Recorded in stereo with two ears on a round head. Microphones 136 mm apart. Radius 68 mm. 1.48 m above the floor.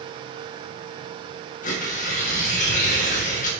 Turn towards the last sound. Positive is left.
turn(degrees=55)  # may be behind; listen again after turning